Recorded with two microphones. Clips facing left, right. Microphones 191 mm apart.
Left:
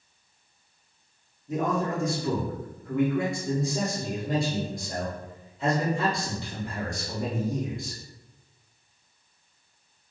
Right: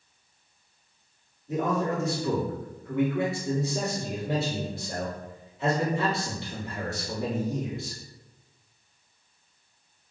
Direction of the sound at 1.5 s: 5° right (ahead or behind).